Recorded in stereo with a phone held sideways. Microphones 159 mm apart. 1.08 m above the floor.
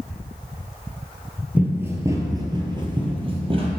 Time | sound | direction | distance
1.6 | running footsteps | 10° right (ahead or behind) | 1.1 m